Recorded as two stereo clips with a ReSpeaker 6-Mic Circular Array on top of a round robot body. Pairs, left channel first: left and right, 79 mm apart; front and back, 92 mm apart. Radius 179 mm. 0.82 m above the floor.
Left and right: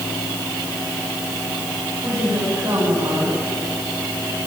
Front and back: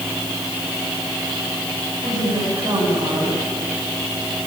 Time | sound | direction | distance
2.0 | a woman speaking | 135° right | 10 m